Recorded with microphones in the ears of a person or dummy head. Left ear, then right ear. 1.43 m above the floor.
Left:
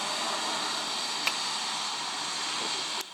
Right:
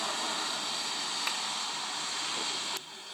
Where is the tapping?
10° left (ahead or behind), 2.0 m.